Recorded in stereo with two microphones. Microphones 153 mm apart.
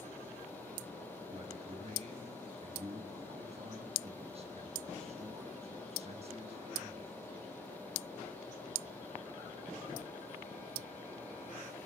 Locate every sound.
1.3 s a man speaking: 45° right (ahead or behind), 6.5 m